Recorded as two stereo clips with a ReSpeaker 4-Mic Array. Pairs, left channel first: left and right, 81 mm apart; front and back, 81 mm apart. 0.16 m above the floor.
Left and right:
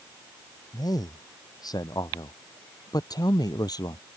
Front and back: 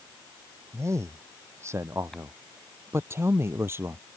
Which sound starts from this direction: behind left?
A man speaking, at 0.7 s.